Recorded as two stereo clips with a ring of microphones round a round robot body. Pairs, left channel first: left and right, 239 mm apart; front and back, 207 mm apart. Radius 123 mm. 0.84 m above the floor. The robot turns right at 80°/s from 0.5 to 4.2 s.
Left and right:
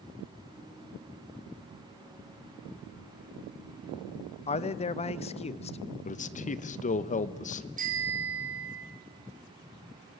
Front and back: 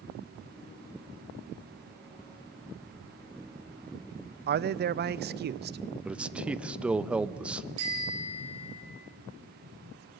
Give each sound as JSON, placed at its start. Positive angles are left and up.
{"t": 4.5, "sound": "a man speaking", "azimuth_deg": 150, "distance_m": 0.6}
{"t": 6.0, "sound": "a man speaking", "azimuth_deg": 100, "distance_m": 0.8}
{"t": 7.8, "sound": "a bicycle bell", "azimuth_deg": -150, "distance_m": 5.5}